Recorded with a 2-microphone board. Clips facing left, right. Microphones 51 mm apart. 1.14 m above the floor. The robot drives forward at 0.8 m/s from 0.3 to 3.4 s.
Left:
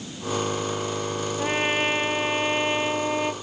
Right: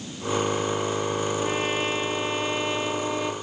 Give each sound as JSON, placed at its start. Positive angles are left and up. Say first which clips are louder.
{"t": 1.4, "sound": "a trumpet", "louder": "left 2 dB", "side_deg": 35}